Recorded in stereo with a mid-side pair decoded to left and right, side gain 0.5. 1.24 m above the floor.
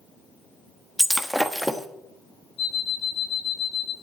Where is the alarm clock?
55° left, 6.5 m.